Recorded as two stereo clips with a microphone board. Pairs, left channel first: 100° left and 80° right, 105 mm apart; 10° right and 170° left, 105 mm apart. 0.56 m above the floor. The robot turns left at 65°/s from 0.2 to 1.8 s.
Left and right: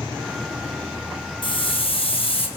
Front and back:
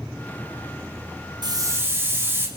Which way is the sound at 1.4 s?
130° left.